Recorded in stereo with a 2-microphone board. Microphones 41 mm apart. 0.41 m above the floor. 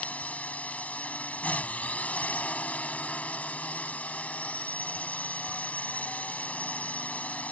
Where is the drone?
35° left (ahead or behind).